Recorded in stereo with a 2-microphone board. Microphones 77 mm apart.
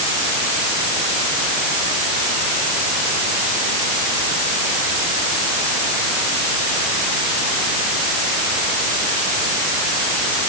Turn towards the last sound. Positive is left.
No sound to turn to.